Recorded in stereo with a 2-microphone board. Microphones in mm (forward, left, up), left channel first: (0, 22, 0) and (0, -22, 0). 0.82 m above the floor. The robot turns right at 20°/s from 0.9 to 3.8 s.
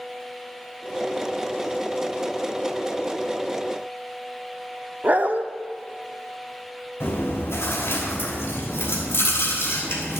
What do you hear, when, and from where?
5.0 s a dog barking: 40° right (ahead or behind), 0.5 m
7.0 s chewing: 70° left (ahead or behind), 3 m